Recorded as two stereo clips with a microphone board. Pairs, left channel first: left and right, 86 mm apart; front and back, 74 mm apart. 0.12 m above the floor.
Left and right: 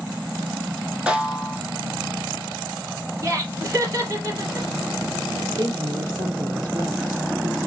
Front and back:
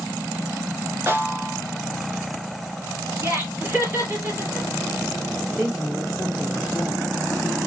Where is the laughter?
130° right, 2.5 m.